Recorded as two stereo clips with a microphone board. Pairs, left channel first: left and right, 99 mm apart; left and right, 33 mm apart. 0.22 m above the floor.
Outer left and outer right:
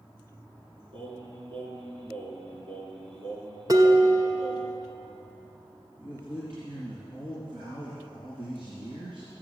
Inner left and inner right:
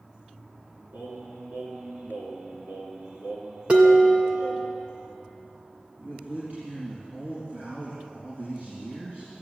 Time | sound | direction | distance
0.9 | singing | 65° right (ahead or behind) | 2.5 m
3.7 | dishes clattering | 40° right (ahead or behind) | 1.3 m
6.0 | a man speaking | 55° right (ahead or behind) | 3.5 m